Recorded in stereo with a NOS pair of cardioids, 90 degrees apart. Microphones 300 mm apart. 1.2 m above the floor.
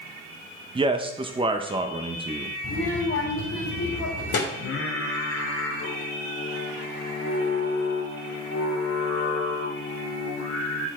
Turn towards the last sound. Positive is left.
turn(degrees=50)